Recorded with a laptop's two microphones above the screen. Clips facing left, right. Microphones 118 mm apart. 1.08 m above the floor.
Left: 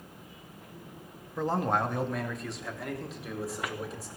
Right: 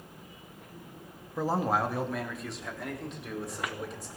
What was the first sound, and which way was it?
A man speaking, 5° right (ahead or behind).